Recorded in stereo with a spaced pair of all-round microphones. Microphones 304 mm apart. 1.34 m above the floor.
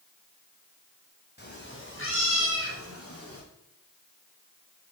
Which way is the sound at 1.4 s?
35° left (ahead or behind).